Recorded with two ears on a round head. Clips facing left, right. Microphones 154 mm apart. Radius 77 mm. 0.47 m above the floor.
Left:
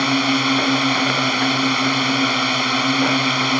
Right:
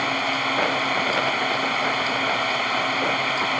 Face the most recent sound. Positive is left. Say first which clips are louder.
# left 7 dB
turn(degrees=50)  # may be behind; listen again after turning